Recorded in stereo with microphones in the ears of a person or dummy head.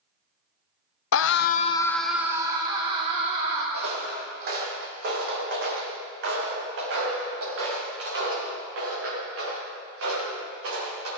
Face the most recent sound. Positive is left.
turn(degrees=-80)